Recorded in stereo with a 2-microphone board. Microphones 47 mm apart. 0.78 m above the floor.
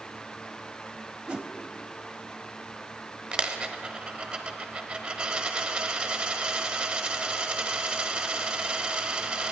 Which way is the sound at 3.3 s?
20° right (ahead or behind).